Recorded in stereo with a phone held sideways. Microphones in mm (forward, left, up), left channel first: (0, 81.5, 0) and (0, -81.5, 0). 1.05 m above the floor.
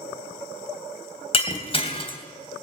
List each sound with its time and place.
1.3 s breaking glass: 35° left (ahead or behind), 3 m